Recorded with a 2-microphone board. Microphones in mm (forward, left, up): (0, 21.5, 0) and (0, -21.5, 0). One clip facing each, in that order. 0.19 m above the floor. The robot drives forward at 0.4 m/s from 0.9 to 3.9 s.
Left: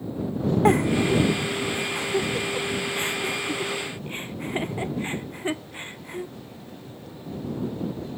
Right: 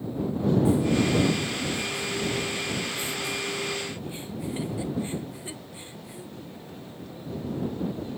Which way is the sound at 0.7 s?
65° left (ahead or behind).